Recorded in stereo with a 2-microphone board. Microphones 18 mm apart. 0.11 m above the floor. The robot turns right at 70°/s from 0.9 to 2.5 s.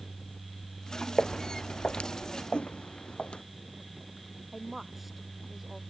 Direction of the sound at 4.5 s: 10° right (ahead or behind).